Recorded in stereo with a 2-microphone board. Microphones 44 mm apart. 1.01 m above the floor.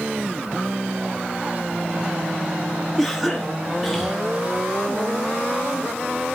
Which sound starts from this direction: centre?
A cough, at 3.0 s.